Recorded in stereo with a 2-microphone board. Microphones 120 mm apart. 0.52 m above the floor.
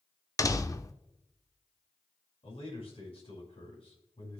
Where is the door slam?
30° left (ahead or behind), 0.6 m.